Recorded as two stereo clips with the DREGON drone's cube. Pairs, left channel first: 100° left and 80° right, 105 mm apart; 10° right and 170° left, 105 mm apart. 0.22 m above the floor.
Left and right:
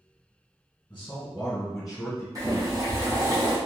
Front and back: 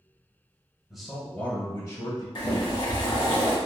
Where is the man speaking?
90° left, 1.0 m; by 2.2 s 5° left, 1.5 m.